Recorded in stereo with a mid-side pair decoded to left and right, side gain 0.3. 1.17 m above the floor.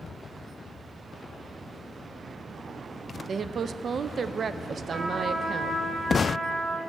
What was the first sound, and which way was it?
A woman speaking, 60° right.